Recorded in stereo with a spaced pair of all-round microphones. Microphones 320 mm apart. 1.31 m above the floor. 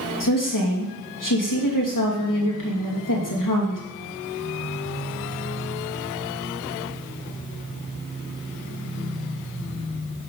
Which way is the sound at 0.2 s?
75° left (ahead or behind).